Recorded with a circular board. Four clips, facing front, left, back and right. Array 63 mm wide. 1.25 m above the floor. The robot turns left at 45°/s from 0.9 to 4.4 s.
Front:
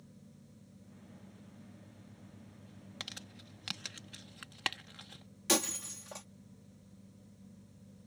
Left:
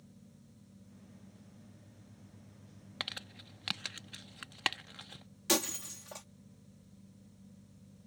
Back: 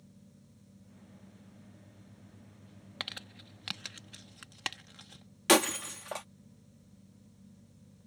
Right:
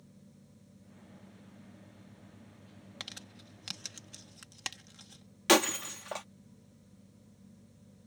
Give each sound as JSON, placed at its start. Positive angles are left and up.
{"t": 3.0, "sound": "crumpling", "azimuth_deg": 140}
{"t": 5.5, "sound": "breaking glass", "azimuth_deg": -135}